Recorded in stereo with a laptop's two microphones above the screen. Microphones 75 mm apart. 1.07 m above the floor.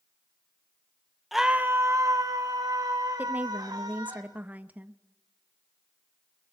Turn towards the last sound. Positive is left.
turn(degrees=-20)  # may be behind; listen again after turning